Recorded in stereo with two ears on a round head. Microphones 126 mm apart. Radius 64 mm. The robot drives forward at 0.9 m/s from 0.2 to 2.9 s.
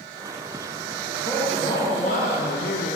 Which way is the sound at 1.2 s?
25° left (ahead or behind).